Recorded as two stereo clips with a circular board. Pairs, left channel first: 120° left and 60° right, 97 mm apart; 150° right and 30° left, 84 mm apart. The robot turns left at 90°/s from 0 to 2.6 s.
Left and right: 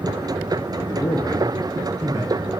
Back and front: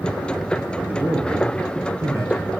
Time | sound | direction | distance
0.8 | a man speaking | 110° left | 2 m